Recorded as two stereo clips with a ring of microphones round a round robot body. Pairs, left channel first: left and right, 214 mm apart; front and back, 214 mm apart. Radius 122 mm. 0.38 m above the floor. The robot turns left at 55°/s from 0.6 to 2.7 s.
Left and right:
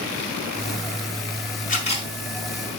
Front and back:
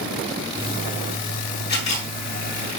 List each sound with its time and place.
1.7 s a camera shutter: 40° left, 5 m; by 2.1 s 20° left, 5 m